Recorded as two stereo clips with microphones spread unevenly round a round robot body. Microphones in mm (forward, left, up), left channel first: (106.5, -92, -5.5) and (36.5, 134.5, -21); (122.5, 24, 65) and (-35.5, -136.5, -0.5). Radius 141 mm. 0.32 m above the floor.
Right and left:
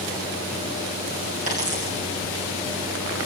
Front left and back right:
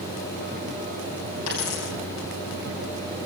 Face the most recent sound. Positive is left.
turn(degrees=50)